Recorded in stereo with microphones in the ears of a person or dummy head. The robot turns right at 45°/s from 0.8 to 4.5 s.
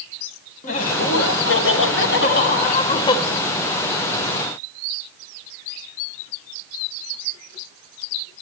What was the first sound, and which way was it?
Laughter, 50° left.